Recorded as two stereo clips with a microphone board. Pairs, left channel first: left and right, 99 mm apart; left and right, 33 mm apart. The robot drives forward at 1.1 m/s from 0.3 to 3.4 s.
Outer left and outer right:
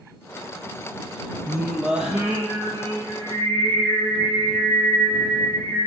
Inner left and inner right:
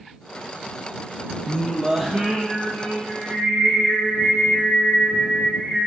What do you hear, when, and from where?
1.5 s singing: 10° right (ahead or behind), 1.1 m; by 5.9 s 5° right (ahead or behind), 3 m